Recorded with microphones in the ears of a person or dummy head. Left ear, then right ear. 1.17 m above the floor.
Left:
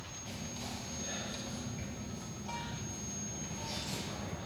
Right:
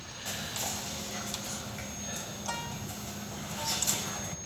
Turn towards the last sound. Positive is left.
turn(degrees=-50)  # may be behind; listen again after turning